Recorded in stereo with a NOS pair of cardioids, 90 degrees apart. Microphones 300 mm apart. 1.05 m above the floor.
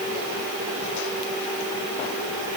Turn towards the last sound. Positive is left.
No sound to turn to.